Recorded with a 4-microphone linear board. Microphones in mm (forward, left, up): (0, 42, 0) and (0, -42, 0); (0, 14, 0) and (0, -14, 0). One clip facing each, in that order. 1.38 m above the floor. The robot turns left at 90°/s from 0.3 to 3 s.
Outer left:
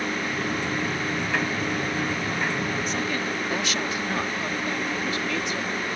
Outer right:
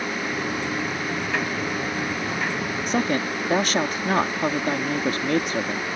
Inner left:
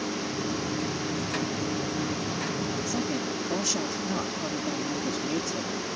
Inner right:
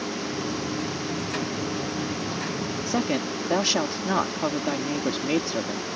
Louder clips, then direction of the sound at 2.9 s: Outer right 4 dB, inner right 4 dB; 65° right (ahead or behind).